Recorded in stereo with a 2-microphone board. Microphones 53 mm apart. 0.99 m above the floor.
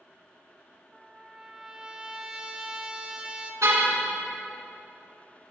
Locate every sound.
0.9 s a trumpet: 15° right (ahead or behind), 1.2 m
3.6 s a car horn: 85° right, 4.5 m